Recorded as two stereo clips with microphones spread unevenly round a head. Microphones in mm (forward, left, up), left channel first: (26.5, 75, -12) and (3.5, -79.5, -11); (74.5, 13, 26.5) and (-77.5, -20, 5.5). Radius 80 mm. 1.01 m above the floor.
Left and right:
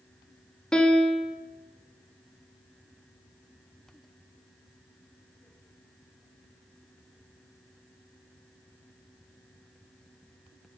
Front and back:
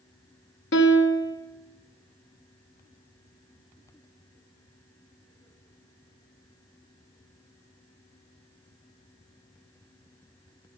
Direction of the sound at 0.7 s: 5° right.